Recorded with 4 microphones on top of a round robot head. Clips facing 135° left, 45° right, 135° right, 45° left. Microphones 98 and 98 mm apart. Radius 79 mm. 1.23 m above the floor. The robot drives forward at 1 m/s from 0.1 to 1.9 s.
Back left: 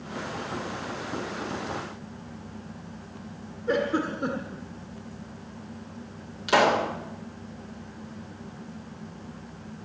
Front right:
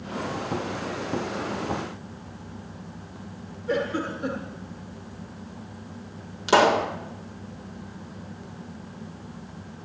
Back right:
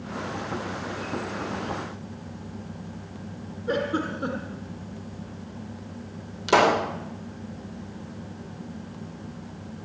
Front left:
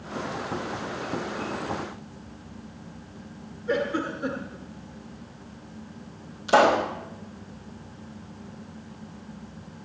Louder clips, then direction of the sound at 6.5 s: Front right 2 dB, front left 1 dB; 105° right.